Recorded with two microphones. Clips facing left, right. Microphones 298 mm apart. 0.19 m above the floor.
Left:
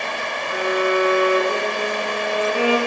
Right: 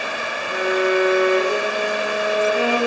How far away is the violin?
About 1.7 m.